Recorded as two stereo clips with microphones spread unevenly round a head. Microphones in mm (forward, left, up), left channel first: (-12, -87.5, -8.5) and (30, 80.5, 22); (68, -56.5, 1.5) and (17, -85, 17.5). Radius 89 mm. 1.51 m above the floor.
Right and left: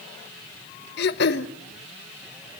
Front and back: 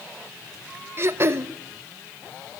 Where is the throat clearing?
135° right, 1.0 m.